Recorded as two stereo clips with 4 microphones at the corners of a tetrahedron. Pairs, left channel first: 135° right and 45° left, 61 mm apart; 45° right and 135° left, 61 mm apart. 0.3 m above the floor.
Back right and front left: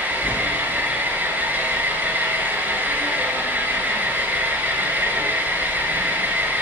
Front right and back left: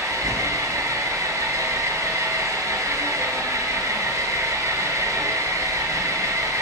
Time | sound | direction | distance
0.0 | an engine running | 110° left | 1.4 m